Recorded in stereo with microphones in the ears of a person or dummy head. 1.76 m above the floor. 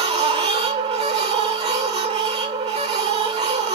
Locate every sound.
0.0 s a machine running: 35° right (ahead or behind), 0.8 m